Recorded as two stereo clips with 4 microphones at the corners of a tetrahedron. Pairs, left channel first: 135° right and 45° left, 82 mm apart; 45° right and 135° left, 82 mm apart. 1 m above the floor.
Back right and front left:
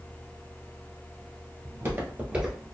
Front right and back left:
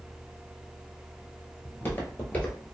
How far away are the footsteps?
About 1.3 m.